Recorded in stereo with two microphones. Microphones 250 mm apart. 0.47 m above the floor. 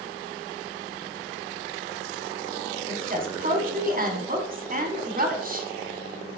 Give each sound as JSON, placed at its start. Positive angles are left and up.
{"t": 2.9, "sound": "a woman speaking", "side_deg": -35, "distance_m": 1.3}